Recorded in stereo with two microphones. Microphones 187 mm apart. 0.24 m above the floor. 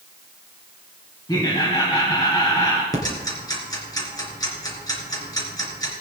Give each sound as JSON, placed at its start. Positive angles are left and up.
{"t": 1.3, "sound": "laughter", "side_deg": 20, "distance_m": 1.7}
{"t": 2.9, "sound": "ticking", "side_deg": 20, "distance_m": 3.0}